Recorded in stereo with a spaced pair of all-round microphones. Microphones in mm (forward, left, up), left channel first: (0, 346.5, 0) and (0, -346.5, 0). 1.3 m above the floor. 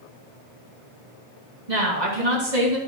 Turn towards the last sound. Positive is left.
turn(degrees=-55)  # may be behind; listen again after turning